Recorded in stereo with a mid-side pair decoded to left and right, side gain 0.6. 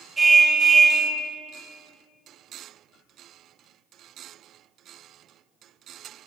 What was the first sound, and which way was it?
A car horn, 20° right.